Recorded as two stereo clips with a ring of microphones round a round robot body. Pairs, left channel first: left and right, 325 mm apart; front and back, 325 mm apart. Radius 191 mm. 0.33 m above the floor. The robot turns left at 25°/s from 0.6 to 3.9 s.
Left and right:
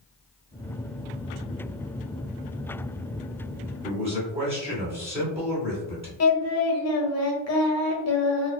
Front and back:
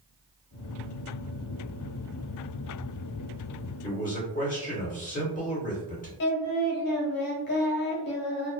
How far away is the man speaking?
About 1.7 m.